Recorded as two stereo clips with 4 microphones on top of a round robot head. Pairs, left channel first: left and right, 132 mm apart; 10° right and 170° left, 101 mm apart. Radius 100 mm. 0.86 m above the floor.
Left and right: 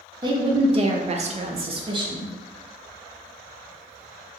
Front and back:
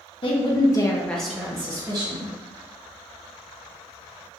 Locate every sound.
0.2 s a woman speaking: 35° right, 1.0 m; by 2.3 s 150° right, 1.1 m